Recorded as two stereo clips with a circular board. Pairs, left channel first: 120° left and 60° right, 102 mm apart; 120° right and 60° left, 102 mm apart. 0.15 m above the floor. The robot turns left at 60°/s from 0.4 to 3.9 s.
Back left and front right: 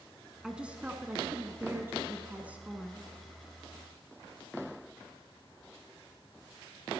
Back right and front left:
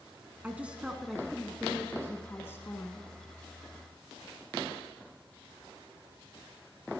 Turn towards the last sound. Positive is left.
turn(degrees=165)